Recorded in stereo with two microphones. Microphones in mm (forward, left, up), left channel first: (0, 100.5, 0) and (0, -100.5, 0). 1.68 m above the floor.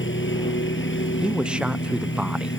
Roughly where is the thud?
No thud in this recording.